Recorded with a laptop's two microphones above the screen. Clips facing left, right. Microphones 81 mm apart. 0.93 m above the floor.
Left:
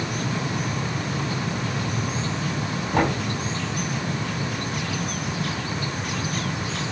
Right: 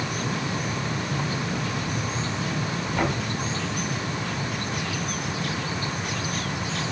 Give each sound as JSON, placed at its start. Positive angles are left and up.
{"t": 2.9, "sound": "knocking", "side_deg": 85, "distance_m": 3.0}